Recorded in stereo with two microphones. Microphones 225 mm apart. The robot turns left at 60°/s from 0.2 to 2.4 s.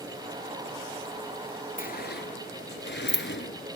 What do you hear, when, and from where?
1.8 s a sliding door: 40° left (ahead or behind), 0.8 m; by 3.8 s 55° left (ahead or behind), 0.8 m